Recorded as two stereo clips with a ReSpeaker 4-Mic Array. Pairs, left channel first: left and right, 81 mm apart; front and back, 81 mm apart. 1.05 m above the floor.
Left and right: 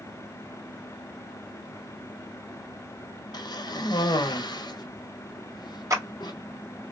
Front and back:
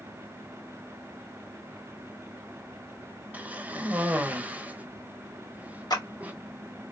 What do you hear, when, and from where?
3.3 s a cough: 110° left, 1.0 m
5.9 s a clap: 40° right, 2 m